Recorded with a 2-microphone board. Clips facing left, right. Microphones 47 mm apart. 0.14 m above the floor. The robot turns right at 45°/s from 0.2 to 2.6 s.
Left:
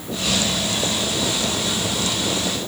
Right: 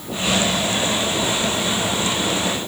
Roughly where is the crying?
I don't hear crying.